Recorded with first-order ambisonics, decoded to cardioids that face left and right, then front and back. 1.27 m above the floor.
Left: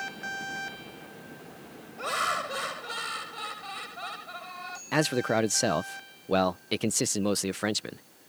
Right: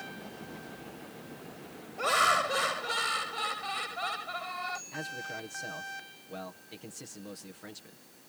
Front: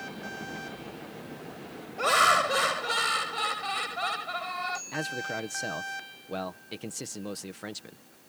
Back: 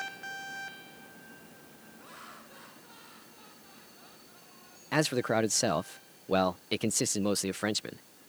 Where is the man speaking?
115° left.